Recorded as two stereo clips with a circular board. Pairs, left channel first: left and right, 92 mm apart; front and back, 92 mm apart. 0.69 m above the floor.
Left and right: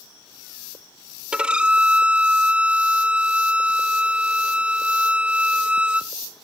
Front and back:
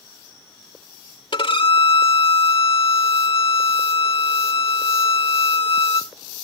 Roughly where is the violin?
Ahead.